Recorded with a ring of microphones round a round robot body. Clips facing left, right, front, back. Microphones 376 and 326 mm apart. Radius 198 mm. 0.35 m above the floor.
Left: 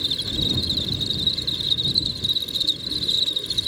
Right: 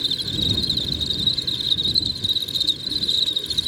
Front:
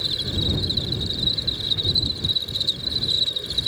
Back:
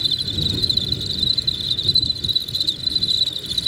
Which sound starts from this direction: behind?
An insect, at 0.0 s.